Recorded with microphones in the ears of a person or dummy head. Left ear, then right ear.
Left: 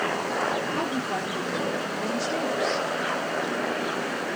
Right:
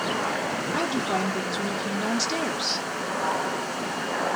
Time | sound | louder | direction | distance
0.7 | a woman speaking | right 2 dB | 40° right (ahead or behind) | 1.0 m